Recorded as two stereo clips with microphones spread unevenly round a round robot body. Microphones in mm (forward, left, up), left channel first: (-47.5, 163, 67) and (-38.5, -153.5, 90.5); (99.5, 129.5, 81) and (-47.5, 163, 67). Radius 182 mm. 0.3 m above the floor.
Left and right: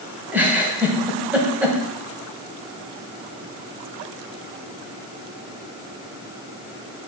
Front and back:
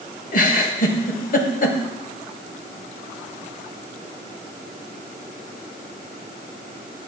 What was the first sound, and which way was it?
A giggle, straight ahead.